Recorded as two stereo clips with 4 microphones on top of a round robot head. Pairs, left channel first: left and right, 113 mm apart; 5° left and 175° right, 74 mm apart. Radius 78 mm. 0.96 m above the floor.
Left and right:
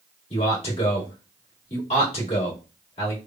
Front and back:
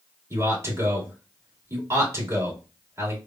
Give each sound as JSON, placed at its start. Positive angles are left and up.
{"t": 0.3, "sound": "a man speaking", "azimuth_deg": 135, "distance_m": 1.9}